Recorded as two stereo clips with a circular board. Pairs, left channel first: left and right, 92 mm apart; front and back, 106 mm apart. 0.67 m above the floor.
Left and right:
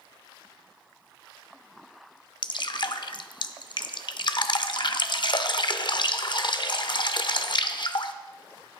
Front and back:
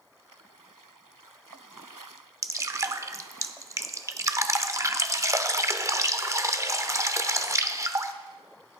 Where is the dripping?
120° left, 0.6 m.